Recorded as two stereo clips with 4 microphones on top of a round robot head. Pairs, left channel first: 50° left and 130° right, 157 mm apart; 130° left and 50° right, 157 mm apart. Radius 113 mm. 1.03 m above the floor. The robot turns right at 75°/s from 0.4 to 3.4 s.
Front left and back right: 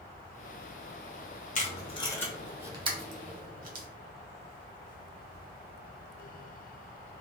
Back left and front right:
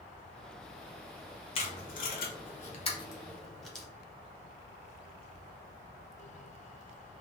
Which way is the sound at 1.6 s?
75° left.